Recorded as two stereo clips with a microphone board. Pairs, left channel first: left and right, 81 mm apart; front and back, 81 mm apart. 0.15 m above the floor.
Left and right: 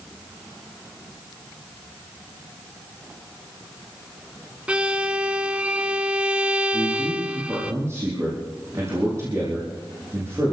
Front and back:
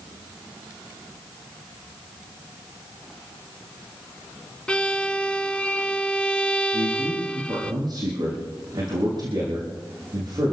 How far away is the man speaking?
About 5.5 m.